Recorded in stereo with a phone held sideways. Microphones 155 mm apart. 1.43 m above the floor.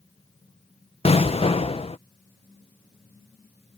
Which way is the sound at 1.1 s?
40° left (ahead or behind).